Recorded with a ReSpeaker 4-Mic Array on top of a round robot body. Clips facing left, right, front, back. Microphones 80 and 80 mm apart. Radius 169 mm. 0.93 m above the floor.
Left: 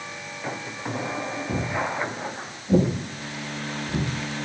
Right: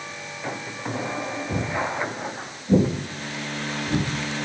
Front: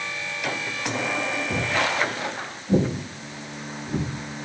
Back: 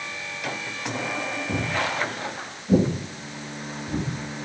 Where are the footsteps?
115° left, 1.3 m; by 4.1 s 90° right, 1.8 m.